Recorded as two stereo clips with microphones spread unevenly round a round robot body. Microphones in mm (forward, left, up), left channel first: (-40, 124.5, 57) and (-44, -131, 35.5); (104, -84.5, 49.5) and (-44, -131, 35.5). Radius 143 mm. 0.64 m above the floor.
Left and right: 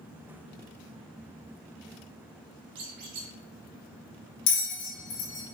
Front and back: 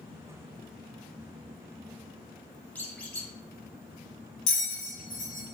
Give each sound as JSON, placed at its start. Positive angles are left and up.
{"t": 2.8, "sound": "a squeak", "azimuth_deg": -60, "distance_m": 0.9}
{"t": 4.5, "sound": "a bell", "azimuth_deg": 75, "distance_m": 1.8}